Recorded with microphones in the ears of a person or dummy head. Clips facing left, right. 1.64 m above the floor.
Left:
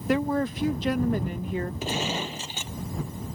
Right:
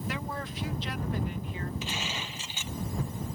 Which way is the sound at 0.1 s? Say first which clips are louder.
Left 15 dB; 45° left (ahead or behind).